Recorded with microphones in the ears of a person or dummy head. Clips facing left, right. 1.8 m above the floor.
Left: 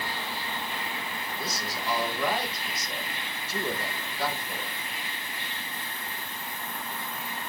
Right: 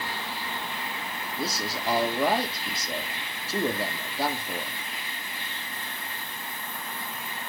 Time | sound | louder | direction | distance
1.4 | a man speaking | right 6 dB | 25° right (ahead or behind) | 1.7 m